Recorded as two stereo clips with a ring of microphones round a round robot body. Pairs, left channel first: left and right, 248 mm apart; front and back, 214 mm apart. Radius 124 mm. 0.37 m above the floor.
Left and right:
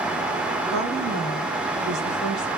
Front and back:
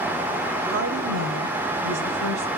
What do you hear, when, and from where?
0.7 s a woman speaking: straight behind, 6 m; by 2.5 s 175° right, 7 m